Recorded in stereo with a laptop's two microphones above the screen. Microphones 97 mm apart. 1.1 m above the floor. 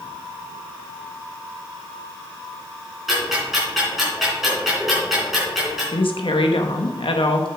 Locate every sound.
3.1 s ticking: centre (ahead or behind), 4.5 m
5.9 s a woman speaking: 65° left (ahead or behind), 1.1 m